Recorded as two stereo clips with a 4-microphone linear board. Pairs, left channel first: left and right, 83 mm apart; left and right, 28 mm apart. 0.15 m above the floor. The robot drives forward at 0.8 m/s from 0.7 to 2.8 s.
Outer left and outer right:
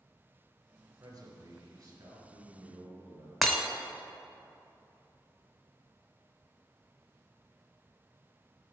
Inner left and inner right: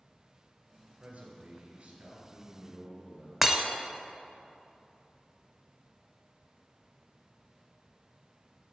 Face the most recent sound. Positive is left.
turn(degrees=0)  # may be behind; listen again after turning